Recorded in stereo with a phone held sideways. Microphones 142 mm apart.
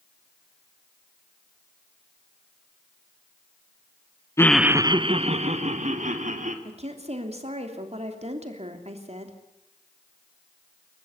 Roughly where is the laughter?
Left.